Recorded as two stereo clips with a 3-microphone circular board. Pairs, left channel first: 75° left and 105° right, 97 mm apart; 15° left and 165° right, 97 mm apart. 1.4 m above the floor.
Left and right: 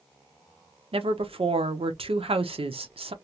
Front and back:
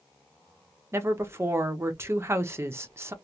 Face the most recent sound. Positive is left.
turn(degrees=-105)